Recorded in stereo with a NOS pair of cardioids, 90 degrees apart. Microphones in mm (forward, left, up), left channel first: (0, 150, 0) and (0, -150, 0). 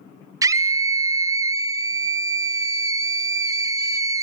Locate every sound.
0.4 s a scream: 10° right, 0.6 m